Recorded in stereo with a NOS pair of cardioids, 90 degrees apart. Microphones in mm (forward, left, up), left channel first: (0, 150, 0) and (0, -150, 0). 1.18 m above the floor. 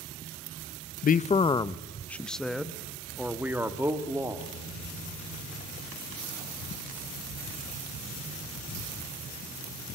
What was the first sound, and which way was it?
A man speaking, 30° left.